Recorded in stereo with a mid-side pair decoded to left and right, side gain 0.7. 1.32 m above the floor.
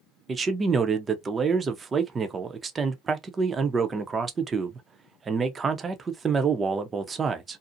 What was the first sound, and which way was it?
A man speaking, 25° right.